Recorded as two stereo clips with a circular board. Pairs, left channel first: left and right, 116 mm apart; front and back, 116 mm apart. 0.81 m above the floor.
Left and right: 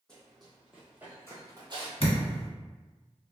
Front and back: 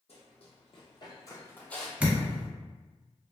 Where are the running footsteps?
5° left, 1.6 m; by 1.9 s 90° right, 1.1 m.